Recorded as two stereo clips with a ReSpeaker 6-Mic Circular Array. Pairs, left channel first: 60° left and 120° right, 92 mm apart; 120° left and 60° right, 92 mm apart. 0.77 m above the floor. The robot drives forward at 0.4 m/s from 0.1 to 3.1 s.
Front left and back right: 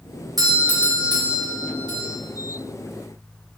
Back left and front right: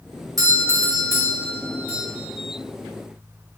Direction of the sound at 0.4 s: 95° right.